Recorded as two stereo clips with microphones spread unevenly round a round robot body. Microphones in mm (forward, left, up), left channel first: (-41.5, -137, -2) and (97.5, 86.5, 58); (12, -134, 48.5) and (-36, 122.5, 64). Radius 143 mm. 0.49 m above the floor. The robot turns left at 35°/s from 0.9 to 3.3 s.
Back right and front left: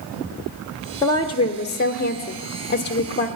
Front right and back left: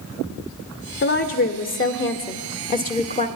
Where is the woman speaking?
60° right, 1.3 m; by 3.3 s 140° right, 1.3 m.